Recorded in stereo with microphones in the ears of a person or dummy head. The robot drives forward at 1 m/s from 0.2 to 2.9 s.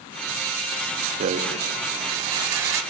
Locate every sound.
1.2 s a rattle: 40° right (ahead or behind), 1.4 m; by 2.8 s 20° right (ahead or behind), 3 m